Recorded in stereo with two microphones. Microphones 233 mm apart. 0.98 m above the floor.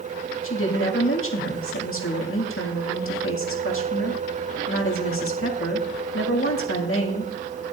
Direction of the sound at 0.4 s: 70° left (ahead or behind).